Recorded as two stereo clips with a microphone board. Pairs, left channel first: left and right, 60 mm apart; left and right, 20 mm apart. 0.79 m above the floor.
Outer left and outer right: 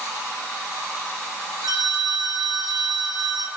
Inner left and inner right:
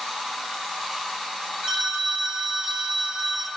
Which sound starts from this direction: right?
A phone ringing, at 1.6 s.